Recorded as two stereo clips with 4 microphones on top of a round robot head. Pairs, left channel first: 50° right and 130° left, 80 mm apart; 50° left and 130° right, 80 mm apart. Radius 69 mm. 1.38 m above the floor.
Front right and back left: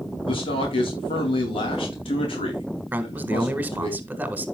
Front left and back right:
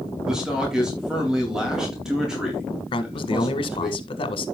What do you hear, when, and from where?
0.3 s a man speaking: 45° right, 2.5 m
2.9 s a man speaking: 60° left, 1.5 m